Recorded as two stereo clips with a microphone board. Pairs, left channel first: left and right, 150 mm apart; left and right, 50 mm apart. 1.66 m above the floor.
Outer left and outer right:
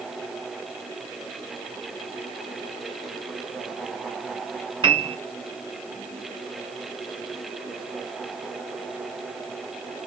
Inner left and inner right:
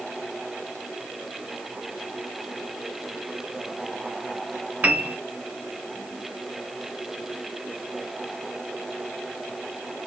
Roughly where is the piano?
Right.